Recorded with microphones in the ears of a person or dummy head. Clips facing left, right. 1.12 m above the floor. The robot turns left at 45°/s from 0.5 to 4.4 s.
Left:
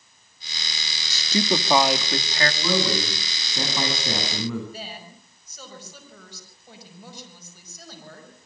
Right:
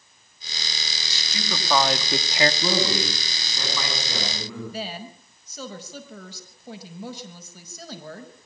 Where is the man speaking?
155° right, 8.5 m; by 4.6 s 125° left, 8.5 m.